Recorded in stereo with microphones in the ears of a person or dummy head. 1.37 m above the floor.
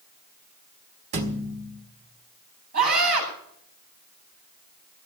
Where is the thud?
45° right (ahead or behind), 1.6 m.